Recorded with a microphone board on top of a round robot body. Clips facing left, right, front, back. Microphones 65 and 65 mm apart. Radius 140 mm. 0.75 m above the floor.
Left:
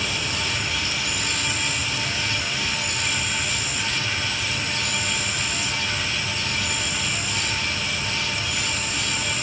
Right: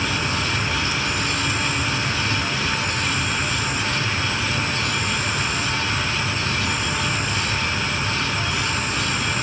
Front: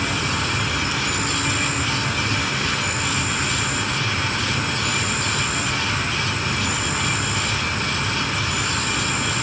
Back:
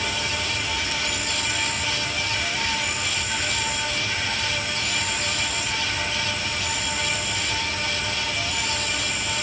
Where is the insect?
35° right.